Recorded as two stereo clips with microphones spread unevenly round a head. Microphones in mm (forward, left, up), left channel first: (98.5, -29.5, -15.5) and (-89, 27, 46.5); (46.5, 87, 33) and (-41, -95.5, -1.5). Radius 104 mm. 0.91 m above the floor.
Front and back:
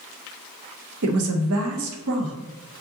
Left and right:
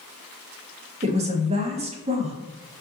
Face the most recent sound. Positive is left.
turn(degrees=-170)